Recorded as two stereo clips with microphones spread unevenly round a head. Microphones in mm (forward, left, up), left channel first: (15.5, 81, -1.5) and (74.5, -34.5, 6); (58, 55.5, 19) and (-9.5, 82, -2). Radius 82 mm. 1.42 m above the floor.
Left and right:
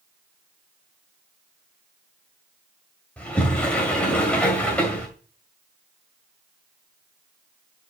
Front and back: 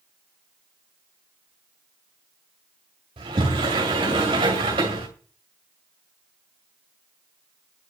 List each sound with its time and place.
3.2 s a sliding door: 160° right, 1.9 m